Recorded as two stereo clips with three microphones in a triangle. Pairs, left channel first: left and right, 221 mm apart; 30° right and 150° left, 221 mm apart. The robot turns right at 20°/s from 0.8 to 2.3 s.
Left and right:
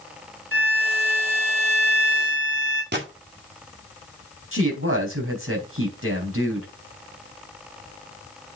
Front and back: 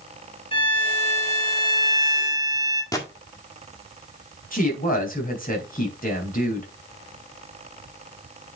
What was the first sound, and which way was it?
A violin, 95° right.